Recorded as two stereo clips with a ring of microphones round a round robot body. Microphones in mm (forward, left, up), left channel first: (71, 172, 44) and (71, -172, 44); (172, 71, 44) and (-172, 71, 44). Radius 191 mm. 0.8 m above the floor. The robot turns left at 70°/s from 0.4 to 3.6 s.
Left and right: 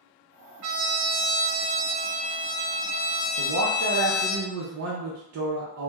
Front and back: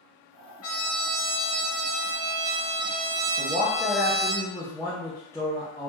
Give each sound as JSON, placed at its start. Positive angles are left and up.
{"t": 0.6, "sound": "a trumpet", "azimuth_deg": -45, "distance_m": 0.5}
{"t": 3.4, "sound": "a man speaking", "azimuth_deg": -60, "distance_m": 0.5}